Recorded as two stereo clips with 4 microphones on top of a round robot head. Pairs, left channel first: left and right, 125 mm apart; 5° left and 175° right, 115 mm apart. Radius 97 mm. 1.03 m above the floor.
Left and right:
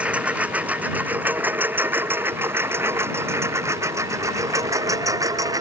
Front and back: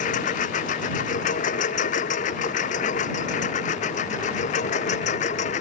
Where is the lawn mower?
10° right; by 5.6 s 25° right.